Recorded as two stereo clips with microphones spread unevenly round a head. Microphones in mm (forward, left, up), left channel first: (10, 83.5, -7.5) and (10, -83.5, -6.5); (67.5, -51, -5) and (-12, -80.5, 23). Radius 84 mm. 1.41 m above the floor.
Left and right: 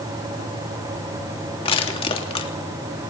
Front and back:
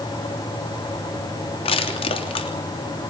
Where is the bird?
I don't hear a bird.